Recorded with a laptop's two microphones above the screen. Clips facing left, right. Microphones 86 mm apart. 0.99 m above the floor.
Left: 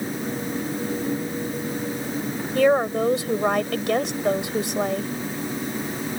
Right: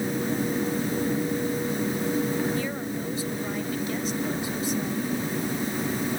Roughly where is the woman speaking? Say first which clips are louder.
Left 11 dB; left.